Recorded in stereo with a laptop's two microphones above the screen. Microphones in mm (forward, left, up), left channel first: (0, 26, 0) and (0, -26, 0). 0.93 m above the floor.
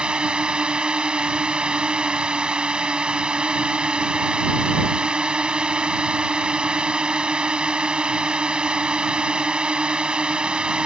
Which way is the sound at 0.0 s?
20° right (ahead or behind).